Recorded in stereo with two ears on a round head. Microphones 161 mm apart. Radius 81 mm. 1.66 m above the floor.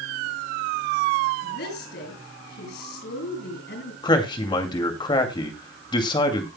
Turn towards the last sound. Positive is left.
turn(degrees=25)  # may be behind; listen again after turning